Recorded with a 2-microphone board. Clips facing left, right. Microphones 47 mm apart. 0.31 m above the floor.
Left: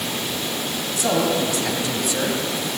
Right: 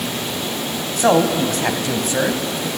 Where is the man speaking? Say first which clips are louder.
Right 6 dB; 55° right (ahead or behind), 2.5 m; by 2.7 s 30° right (ahead or behind), 2 m.